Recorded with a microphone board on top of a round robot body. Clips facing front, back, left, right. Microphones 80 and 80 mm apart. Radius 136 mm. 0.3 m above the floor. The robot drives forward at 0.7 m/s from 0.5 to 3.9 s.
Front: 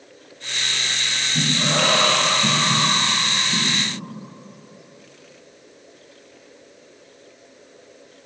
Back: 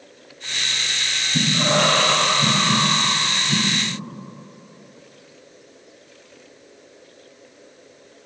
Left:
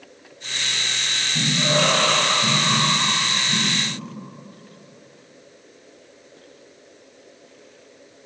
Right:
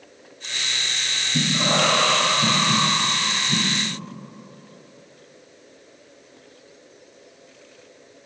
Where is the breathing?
110° right, 2 m; by 3.8 s 140° right, 3 m.